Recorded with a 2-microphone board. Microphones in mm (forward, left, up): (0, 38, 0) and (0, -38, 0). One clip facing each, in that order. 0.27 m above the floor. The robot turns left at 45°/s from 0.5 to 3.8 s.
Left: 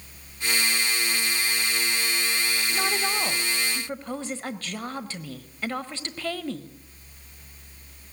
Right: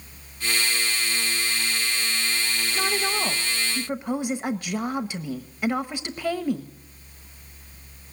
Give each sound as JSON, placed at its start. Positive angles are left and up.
{"t": 2.7, "sound": "a woman speaking", "side_deg": 5, "distance_m": 0.9}